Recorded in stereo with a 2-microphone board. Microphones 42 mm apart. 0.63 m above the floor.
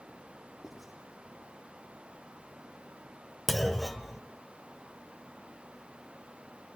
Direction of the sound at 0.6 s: 5° right (ahead or behind).